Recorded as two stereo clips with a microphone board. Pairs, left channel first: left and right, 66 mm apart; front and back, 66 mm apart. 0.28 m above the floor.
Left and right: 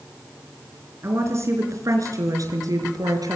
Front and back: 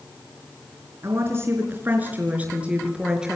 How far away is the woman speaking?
About 4 m.